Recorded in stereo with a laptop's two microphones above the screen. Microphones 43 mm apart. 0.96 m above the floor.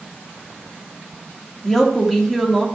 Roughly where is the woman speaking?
Centre.